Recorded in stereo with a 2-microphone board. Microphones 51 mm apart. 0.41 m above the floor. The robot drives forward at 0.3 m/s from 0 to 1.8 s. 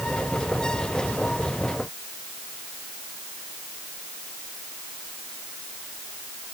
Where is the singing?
No singing in this recording.